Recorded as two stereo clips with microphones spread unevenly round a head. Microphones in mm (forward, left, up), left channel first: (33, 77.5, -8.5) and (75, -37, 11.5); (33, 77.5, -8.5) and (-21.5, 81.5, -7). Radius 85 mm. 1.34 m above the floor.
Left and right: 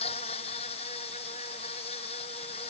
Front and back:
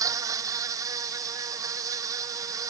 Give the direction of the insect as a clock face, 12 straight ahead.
6 o'clock.